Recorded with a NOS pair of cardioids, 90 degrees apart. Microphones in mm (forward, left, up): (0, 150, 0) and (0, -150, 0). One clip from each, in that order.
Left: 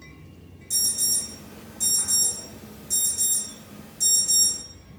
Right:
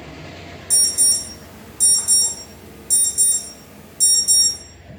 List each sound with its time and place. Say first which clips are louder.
0.7 s an alarm: right 6 dB; 55° right, 0.8 m